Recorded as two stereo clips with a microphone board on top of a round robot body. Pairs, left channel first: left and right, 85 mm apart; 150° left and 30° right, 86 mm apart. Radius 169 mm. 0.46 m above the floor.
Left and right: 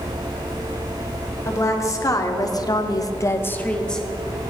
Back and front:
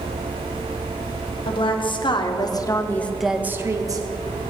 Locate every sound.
1.4 s a woman speaking: 145° left, 2.0 m; by 4.1 s 10° left, 1.3 m